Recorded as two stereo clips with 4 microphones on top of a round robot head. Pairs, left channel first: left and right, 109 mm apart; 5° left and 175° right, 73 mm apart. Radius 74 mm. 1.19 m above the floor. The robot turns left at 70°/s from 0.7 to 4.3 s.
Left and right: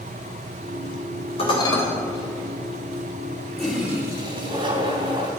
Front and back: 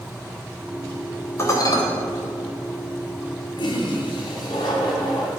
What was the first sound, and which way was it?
Dishes clattering, 55° left.